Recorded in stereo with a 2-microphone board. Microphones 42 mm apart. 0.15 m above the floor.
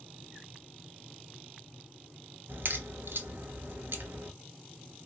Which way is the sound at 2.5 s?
60° right (ahead or behind).